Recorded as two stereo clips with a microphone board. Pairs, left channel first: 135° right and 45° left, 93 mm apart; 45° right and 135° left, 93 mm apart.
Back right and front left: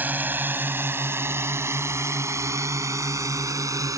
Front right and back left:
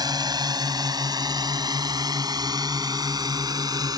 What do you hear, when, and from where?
0.0 s a drone: 110° left; by 4.0 s 95° left